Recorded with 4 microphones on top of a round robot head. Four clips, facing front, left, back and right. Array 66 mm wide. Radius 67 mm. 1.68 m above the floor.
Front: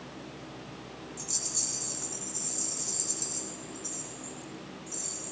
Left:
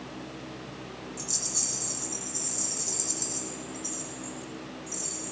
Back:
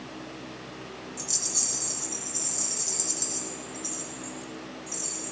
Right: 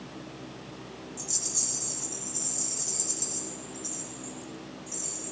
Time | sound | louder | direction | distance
1.2 | a rattle | left 2 dB, back 4 dB | straight behind | 0.6 m